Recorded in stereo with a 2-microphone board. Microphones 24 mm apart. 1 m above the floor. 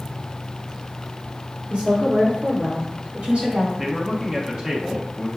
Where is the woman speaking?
75° right (ahead or behind), 2 m; by 3.7 s 55° right (ahead or behind), 4 m.